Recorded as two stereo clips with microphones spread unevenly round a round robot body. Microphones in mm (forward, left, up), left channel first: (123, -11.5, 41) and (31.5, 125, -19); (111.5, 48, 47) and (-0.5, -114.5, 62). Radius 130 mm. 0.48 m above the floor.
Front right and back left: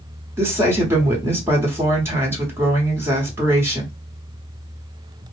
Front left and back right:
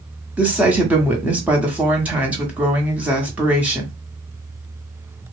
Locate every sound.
0.4 s a woman speaking: 150° left, 0.9 m